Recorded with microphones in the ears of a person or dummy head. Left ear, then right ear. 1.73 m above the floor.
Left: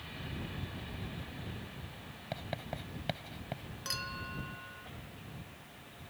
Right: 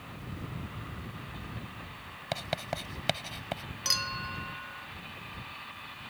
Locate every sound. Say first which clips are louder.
2.3 s writing: right 7 dB; 55° right (ahead or behind)
3.9 s a clink: right 8 dB; 30° right (ahead or behind)